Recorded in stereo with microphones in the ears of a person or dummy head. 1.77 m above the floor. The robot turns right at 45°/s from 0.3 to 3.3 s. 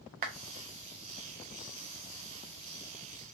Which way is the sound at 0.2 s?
35° right (ahead or behind).